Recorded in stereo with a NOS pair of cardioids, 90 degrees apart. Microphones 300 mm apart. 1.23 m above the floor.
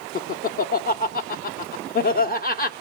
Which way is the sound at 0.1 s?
30° left.